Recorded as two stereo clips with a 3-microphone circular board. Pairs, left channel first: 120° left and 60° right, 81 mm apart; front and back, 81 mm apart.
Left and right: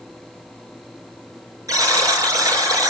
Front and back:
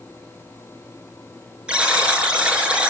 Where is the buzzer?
105° right, 5 m.